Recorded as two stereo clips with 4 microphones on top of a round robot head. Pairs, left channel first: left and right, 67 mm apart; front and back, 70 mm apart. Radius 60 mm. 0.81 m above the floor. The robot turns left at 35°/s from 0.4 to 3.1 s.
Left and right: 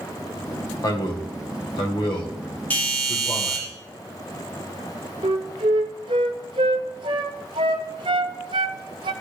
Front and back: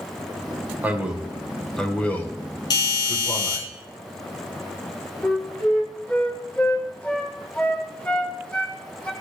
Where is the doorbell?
20° left, 4 m; by 3.6 s 5° left, 4 m.